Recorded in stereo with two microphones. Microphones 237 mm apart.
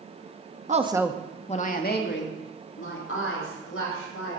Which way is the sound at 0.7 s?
30° right (ahead or behind).